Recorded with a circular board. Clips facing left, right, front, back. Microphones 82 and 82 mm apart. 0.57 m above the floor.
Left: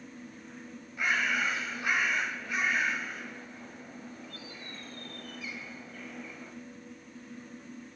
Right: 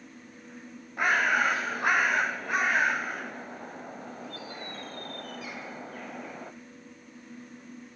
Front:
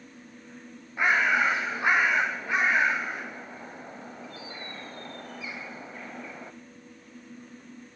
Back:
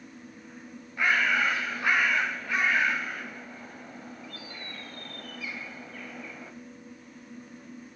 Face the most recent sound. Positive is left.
turn(degrees=-65)